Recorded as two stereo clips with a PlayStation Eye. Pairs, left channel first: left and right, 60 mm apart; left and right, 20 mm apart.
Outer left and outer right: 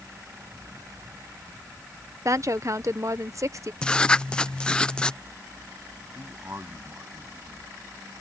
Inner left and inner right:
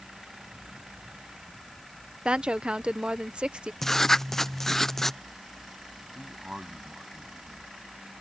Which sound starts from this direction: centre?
Writing, at 3.8 s.